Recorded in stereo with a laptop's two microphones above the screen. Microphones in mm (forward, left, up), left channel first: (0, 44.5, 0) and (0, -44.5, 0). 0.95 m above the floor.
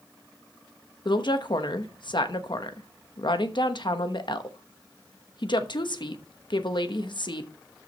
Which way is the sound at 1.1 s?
60° left (ahead or behind).